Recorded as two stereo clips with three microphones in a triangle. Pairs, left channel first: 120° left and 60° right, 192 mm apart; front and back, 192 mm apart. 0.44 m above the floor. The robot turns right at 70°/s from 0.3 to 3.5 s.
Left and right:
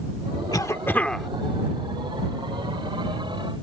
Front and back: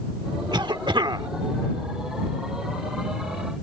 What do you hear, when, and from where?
0.5 s a cough: 160° left; by 1.3 s 150° right